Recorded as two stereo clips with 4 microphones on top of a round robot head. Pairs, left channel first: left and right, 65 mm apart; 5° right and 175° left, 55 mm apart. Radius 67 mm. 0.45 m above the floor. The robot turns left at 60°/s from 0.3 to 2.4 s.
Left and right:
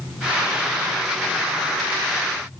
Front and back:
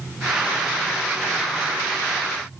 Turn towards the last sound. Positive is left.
No sound to turn to.